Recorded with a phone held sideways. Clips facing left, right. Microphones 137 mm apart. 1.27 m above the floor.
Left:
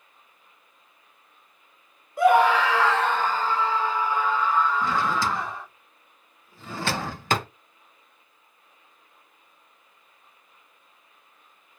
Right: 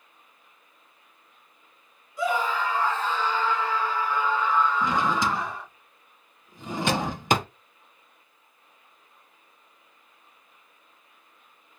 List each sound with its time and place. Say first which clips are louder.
2.2 s a scream: left 8 dB; 55° left (ahead or behind), 0.7 m; by 5.7 s centre (ahead or behind), 1.9 m
4.8 s a drawer: even; 15° right (ahead or behind), 0.6 m